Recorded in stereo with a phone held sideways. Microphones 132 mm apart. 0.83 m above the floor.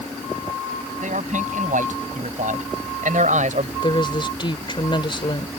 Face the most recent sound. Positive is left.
turn(degrees=40)  # may be behind; listen again after turning